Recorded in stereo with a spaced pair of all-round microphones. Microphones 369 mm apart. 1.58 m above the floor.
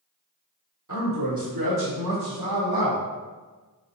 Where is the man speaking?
55° right (ahead or behind), 1.5 m; by 3.0 s 70° right (ahead or behind), 1.8 m.